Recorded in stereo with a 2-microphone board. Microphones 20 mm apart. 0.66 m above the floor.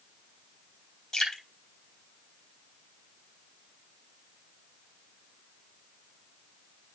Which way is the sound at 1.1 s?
30° left (ahead or behind).